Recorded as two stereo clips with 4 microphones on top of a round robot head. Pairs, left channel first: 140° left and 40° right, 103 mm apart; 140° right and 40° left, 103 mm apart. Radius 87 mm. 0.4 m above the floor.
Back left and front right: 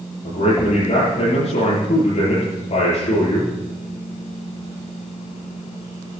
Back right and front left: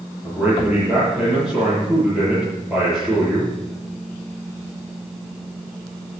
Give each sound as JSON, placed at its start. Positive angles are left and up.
{"t": 0.2, "sound": "a man speaking", "azimuth_deg": 120, "distance_m": 7.5}